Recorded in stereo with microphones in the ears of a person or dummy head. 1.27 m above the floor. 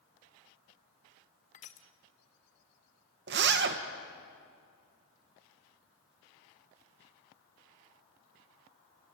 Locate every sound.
1.5 s crushing: 30° left (ahead or behind), 0.9 m
3.3 s a zipper: 60° right (ahead or behind), 1.3 m